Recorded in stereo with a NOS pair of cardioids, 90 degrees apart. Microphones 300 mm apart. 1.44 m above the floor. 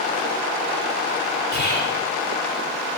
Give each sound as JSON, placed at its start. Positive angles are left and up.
{"t": 1.5, "sound": "whispering", "azimuth_deg": 35, "distance_m": 0.6}